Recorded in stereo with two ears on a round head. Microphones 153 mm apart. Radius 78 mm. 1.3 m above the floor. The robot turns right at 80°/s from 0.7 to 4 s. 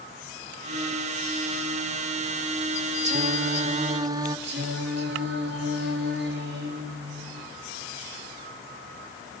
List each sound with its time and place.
3.0 s singing: 110° right, 1.1 m; by 4.4 s 35° right, 1.1 m
4.5 s singing: 75° right (ahead or behind), 7.5 m